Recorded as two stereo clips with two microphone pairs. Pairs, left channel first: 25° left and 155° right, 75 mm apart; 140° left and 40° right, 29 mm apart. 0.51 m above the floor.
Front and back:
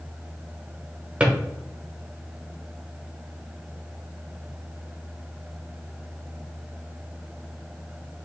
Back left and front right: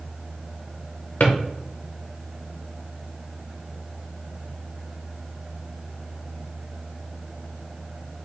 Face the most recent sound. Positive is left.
turn(degrees=135)